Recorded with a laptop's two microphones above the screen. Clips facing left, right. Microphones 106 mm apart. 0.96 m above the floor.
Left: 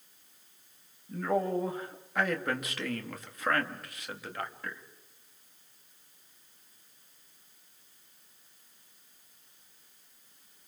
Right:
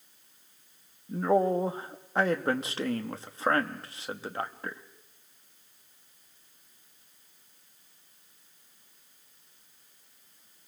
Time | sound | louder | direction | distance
1.1 | a man speaking | right 5 dB | 30° right (ahead or behind) | 1.2 m